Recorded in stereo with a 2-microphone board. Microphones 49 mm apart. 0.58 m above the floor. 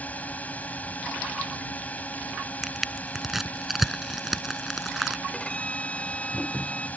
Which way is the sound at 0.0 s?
30° left (ahead or behind).